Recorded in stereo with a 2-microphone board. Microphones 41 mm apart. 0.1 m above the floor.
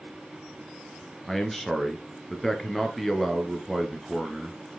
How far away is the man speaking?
About 1.6 m.